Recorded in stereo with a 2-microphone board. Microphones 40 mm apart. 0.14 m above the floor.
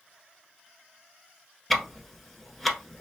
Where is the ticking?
5° left (ahead or behind), 0.9 m.